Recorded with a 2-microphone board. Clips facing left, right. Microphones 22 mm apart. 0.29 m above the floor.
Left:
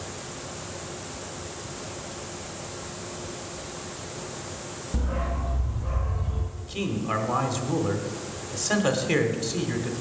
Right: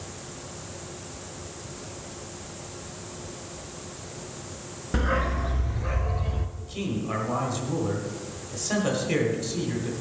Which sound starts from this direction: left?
A man speaking, at 6.6 s.